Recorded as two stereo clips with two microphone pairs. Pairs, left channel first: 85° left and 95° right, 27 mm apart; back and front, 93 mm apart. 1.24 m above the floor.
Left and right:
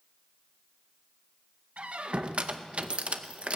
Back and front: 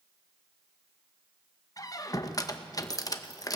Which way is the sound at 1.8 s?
130° right.